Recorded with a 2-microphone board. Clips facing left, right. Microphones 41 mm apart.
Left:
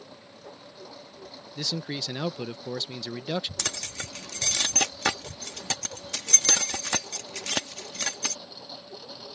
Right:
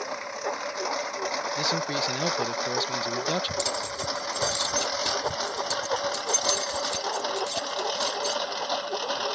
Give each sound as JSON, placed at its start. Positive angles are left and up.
{"t": 0.0, "sound": "a lawn mower", "side_deg": -85}
{"t": 1.6, "sound": "a man speaking", "side_deg": -5}
{"t": 3.6, "sound": "keys jangling", "side_deg": 85}